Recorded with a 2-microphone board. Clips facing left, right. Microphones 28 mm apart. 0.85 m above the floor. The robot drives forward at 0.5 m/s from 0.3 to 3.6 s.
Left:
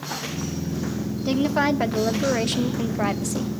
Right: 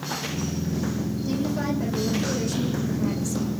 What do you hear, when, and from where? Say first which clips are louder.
1.2 s a woman speaking: left 7 dB; 50° left (ahead or behind), 1.6 m; by 3.5 s 75° left (ahead or behind), 1.3 m